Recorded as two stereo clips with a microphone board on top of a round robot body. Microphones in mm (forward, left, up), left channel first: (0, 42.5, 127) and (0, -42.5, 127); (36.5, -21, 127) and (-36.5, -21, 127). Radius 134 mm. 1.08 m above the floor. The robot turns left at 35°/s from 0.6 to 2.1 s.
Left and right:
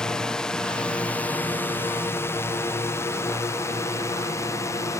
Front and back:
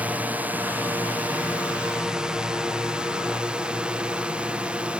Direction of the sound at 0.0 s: 160° left.